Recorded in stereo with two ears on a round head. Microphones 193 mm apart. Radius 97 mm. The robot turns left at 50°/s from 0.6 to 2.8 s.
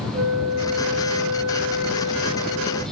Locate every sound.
0.1 s a flute: 80° right, 1.9 m; by 2.8 s 170° left, 1.9 m